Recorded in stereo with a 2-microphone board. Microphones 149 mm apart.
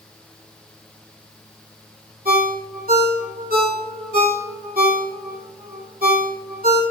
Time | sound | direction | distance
2.2 | a ringtone | 80° right | 2 m